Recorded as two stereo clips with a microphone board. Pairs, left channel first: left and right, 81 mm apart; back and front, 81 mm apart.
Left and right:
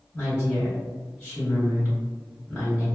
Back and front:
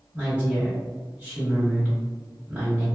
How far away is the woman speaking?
About 1.3 m.